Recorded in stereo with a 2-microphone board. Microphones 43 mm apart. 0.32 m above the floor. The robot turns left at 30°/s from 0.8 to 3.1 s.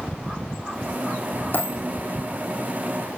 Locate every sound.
1.5 s a dropped coin: 50° left (ahead or behind), 3 m; by 1.8 s 45° left (ahead or behind), 3 m